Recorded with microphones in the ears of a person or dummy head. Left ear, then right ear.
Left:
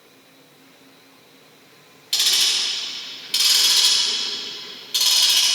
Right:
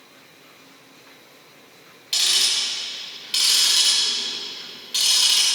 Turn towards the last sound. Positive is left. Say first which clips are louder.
# left 1 dB
turn(degrees=0)  # may be behind; listen again after turning